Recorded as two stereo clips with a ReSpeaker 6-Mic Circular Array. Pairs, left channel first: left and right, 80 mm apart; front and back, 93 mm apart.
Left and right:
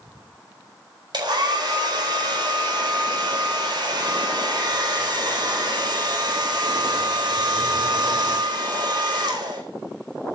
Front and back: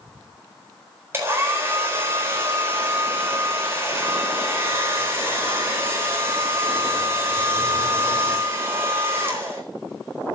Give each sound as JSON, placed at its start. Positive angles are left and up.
{"t": 1.1, "sound": "a hair dryer", "azimuth_deg": -115, "distance_m": 4.5}